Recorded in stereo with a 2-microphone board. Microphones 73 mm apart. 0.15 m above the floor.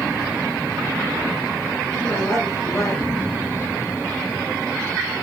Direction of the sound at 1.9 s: 35° left (ahead or behind).